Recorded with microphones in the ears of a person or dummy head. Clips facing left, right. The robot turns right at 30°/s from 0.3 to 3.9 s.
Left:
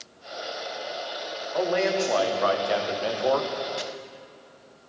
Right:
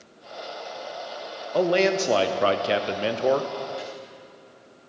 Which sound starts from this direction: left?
Chopping, at 3.8 s.